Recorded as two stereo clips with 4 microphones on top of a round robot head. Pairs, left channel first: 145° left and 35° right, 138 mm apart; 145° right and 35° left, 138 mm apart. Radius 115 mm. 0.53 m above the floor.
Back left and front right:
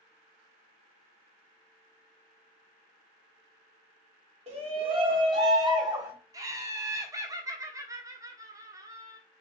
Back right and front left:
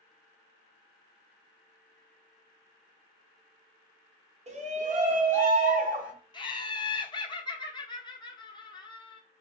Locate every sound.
4.5 s a shout: 5° left, 1.7 m; by 6.1 s 30° left, 2 m
6.3 s laughter: 95° right, 1.3 m